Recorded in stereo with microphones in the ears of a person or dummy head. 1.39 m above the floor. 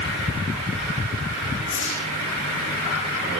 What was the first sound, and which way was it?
A whoosh, 70° left (ahead or behind).